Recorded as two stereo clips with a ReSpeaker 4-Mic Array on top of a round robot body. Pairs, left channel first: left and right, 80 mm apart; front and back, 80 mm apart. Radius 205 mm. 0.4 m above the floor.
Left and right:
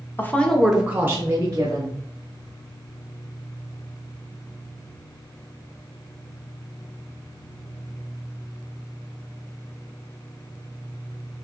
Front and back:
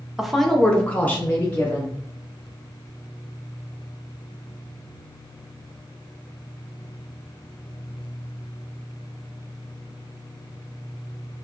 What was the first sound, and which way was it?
A woman speaking, 100° left.